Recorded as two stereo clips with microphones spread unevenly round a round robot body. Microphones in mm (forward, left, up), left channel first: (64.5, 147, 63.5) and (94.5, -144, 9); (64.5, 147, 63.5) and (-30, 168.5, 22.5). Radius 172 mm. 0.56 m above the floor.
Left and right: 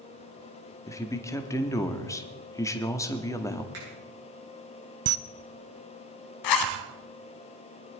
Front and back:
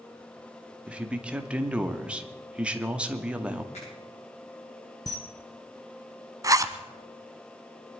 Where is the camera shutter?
45° right, 0.5 m.